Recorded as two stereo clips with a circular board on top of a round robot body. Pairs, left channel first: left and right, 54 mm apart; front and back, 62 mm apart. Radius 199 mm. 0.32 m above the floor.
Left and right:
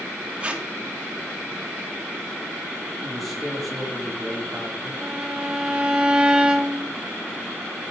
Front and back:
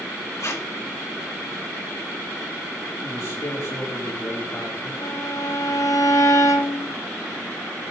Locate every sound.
0.4 s tape being pulled: 25° right, 3.5 m
3.0 s a man speaking: straight ahead, 2.5 m
5.0 s a violin: 20° right, 1.5 m